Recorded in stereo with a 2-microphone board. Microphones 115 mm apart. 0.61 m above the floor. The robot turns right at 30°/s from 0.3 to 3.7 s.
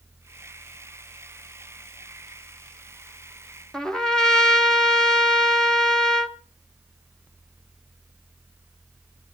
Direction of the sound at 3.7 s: 5° left (ahead or behind).